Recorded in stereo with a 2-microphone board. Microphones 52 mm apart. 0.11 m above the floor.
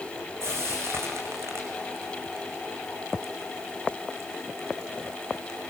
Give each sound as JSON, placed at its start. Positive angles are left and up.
{"t": 0.4, "sound": "frying", "side_deg": -55, "distance_m": 8.0}